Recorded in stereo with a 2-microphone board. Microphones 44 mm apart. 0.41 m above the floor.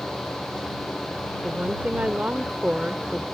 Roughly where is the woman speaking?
Right.